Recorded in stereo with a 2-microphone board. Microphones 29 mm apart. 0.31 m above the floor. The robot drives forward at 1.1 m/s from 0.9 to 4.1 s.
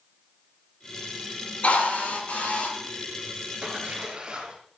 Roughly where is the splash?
Right.